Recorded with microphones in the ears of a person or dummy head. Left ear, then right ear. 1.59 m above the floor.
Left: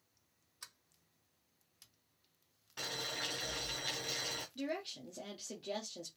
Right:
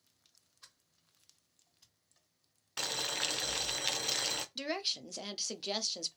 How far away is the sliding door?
About 1.7 m.